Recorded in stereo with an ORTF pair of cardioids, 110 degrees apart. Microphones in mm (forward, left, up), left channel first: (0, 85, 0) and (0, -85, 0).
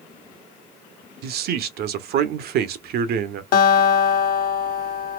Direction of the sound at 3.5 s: 60° left.